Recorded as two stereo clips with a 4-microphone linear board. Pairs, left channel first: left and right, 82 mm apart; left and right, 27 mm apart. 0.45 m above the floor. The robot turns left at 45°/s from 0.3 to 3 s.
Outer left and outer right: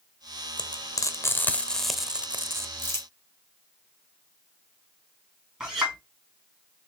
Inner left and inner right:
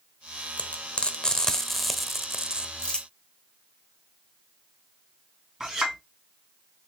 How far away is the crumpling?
About 1.3 m.